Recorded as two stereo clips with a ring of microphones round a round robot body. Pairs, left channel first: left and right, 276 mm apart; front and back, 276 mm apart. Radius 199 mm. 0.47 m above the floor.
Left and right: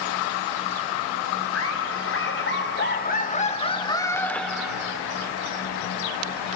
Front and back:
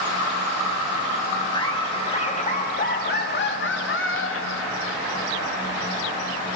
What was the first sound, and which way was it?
Laughter, 70° left.